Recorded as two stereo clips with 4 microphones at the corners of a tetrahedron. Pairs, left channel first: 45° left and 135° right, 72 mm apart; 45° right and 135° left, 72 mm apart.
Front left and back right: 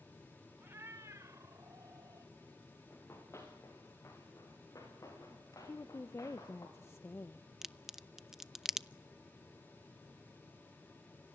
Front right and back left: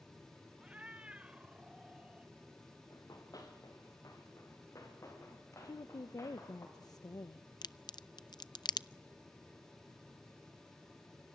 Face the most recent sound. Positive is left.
turn(degrees=-55)